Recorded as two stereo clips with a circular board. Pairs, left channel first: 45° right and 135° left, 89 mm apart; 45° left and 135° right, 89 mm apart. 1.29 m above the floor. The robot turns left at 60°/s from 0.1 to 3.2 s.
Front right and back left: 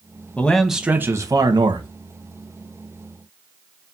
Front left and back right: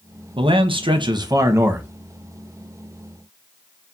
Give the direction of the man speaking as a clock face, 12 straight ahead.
4 o'clock.